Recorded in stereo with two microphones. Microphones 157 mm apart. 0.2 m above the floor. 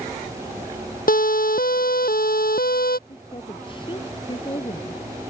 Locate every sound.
1.1 s a siren: 65° left (ahead or behind); by 3.0 s 70° left (ahead or behind)
3.1 s a woman speaking: 30° left (ahead or behind)